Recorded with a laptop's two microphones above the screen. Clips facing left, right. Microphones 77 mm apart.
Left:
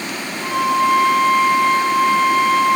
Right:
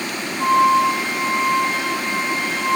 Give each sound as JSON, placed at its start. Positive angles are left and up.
{"t": 0.4, "sound": "a flute", "side_deg": -30, "distance_m": 3.5}